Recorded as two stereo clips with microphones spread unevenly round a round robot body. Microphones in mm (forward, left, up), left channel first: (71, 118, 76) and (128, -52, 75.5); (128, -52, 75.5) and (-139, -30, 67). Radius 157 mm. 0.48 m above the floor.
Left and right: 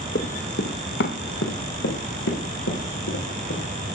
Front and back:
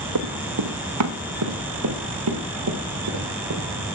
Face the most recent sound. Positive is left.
turn(degrees=130)